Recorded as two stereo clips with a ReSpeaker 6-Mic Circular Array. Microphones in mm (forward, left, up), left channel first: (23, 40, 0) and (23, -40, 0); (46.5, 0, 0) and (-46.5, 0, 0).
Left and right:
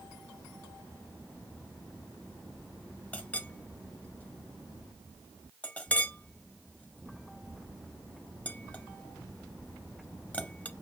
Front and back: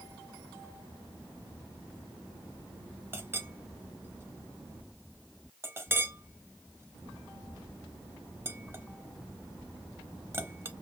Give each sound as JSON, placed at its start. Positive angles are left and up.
{"t": 3.1, "sound": "a clink", "azimuth_deg": 145, "distance_m": 0.6}